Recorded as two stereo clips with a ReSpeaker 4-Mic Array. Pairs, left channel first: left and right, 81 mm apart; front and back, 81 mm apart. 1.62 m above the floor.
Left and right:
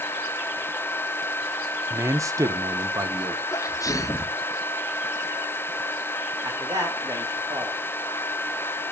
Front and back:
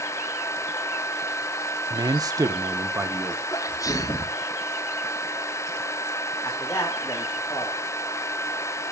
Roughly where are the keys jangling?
No keys jangling in this recording.